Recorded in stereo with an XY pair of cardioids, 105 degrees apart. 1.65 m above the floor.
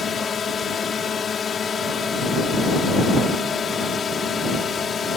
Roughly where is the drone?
Ahead left.